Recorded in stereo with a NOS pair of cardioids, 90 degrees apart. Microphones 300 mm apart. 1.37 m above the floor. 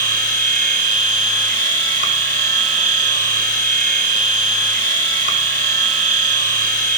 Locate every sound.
0.0 s a machine running: 25° right, 1.9 m